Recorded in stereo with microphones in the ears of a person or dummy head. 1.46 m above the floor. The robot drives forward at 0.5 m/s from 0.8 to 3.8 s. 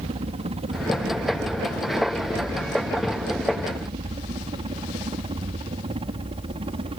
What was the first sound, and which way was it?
A helicopter, 25° right (ahead or behind).